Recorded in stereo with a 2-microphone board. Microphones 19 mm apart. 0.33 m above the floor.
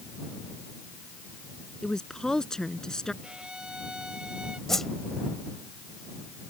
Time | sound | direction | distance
1.8 | a woman speaking | 35° left (ahead or behind) | ?
3.2 | a violin | 50° right (ahead or behind) | ?
4.7 | a whoosh | 20° left (ahead or behind) | ?